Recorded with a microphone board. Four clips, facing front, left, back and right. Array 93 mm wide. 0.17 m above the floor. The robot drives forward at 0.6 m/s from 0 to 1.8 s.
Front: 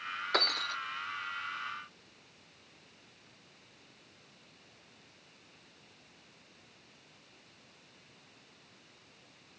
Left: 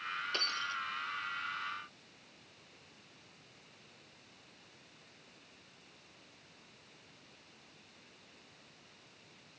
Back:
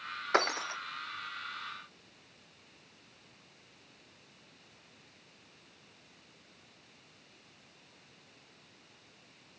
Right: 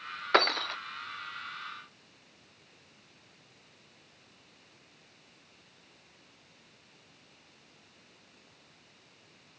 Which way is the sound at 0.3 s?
110° right.